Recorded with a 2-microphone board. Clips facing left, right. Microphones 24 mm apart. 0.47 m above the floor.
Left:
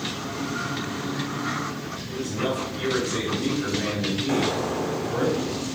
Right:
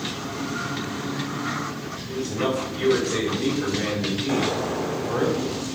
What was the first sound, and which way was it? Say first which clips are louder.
A man speaking: right 2 dB; 60° right (ahead or behind).